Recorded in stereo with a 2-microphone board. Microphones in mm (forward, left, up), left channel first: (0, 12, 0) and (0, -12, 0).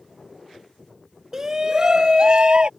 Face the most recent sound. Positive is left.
turn(degrees=-35)  # may be behind; listen again after turning